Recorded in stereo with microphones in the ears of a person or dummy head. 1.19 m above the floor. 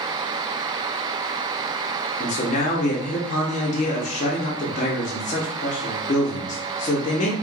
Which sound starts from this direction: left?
A man speaking, at 2.2 s.